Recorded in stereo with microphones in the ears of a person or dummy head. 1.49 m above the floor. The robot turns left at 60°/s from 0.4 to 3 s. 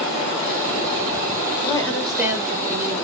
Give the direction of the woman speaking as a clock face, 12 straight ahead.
11 o'clock.